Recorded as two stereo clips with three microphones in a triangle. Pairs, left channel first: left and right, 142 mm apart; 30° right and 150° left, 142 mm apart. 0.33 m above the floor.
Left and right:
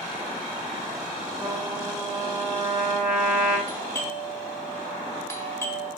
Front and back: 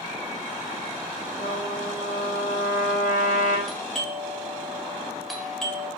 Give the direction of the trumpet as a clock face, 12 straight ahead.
12 o'clock.